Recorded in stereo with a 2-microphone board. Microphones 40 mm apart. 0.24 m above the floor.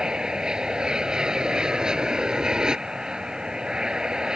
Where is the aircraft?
20° right (ahead or behind).